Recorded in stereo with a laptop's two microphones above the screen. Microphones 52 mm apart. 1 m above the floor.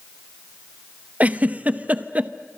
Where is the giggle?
30° right (ahead or behind), 0.8 m.